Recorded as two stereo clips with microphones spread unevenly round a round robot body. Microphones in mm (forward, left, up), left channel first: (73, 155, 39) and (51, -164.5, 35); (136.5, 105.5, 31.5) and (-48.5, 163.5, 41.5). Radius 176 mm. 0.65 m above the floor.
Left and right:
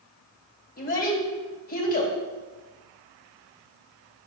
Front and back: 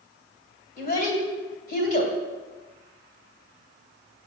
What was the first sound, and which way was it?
A child speaking, 25° left.